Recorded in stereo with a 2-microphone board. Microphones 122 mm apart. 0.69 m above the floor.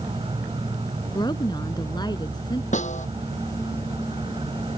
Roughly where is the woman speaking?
Left.